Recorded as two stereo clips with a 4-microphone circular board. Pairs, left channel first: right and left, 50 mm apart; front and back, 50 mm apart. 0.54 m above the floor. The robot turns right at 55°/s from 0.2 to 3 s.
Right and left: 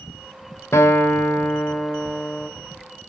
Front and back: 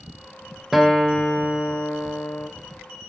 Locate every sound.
0.7 s a guitar: 95° right, 2.5 m; by 2.5 s straight ahead, 2.5 m